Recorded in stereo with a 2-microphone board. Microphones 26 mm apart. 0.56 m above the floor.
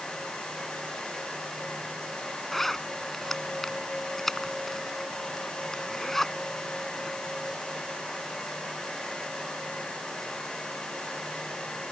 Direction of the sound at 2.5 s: 10° left (ahead or behind).